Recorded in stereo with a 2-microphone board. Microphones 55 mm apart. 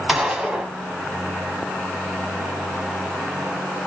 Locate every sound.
0.1 s a gunshot: 15° right (ahead or behind), 0.8 m